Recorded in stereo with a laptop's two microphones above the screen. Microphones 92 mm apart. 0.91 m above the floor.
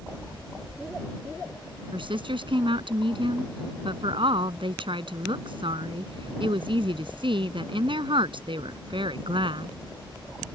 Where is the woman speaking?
65° right (ahead or behind).